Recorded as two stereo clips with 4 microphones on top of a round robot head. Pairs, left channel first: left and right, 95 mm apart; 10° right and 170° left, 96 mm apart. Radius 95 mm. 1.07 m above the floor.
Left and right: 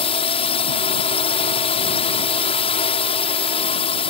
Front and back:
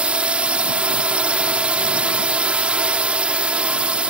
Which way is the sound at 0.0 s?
95° left.